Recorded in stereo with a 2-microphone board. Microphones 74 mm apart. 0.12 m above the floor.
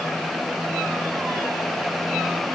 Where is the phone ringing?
No phone ringing in this recording.